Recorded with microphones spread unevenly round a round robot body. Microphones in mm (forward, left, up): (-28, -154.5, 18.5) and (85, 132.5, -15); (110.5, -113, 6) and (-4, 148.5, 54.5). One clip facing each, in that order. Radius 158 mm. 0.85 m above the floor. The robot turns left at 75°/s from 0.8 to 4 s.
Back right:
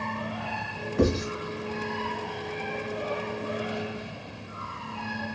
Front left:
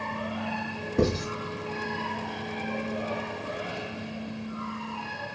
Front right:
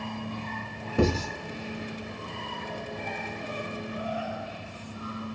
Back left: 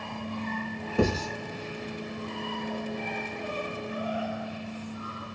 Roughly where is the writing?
Ahead.